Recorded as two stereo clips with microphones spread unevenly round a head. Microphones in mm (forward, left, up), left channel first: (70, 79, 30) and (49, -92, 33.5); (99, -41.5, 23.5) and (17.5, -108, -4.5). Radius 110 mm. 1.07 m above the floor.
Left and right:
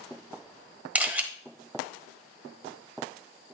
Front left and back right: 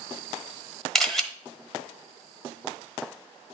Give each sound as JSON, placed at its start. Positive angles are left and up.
{"t": 0.9, "sound": "a camera shutter", "azimuth_deg": -25, "distance_m": 1.0}